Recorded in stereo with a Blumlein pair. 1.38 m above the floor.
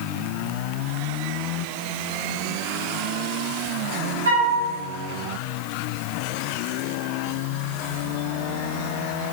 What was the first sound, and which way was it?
A flute, 65° right.